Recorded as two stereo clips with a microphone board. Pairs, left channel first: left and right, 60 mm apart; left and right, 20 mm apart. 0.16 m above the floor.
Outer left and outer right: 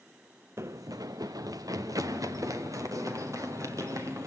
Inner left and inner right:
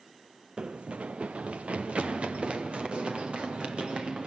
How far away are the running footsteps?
About 0.6 m.